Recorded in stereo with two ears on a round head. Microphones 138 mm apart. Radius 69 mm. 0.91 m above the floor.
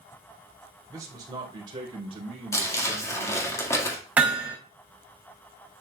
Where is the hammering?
10° right (ahead or behind), 3.5 m.